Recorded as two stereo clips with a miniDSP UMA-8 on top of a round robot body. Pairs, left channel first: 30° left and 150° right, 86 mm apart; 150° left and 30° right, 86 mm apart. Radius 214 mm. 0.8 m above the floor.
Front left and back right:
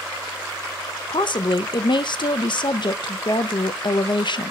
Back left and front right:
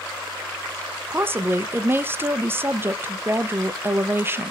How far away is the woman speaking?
About 0.8 m.